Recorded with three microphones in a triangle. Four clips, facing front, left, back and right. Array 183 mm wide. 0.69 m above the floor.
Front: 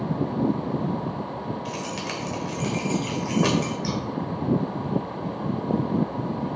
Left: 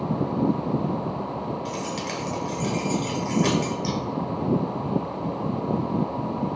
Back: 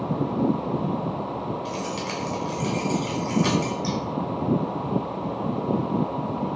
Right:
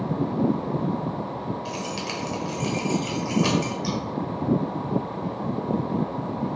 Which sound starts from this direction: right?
Scissors, at 3.8 s.